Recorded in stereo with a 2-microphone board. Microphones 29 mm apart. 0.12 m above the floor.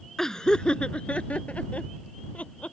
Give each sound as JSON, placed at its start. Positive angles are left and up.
{"t": 0.2, "sound": "laughter", "side_deg": 15}